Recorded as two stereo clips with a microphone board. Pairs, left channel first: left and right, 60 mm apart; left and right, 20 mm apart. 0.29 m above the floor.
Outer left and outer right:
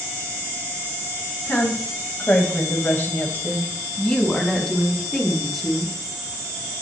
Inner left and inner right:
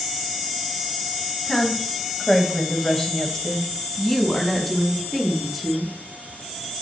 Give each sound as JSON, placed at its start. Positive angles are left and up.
{"t": 1.5, "sound": "a woman speaking", "side_deg": 40, "distance_m": 2.5}